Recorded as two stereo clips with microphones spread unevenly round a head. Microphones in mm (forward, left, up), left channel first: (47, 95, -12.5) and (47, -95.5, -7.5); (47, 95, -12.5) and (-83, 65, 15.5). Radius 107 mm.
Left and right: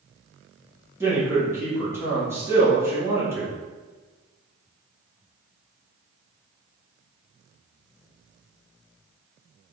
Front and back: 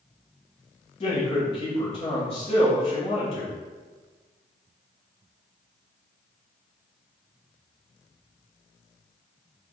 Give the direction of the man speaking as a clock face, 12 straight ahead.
12 o'clock.